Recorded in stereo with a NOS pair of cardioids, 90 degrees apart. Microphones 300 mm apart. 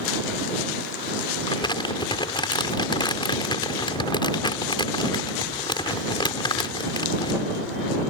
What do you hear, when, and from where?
1.5 s crumpling: 15° left